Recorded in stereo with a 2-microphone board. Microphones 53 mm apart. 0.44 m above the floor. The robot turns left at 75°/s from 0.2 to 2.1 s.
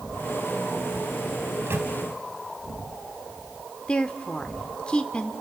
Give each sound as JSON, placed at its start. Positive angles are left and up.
{"t": 1.5, "sound": "a microwave", "side_deg": -65, "distance_m": 2.0}
{"t": 3.9, "sound": "a woman speaking", "side_deg": 15, "distance_m": 0.9}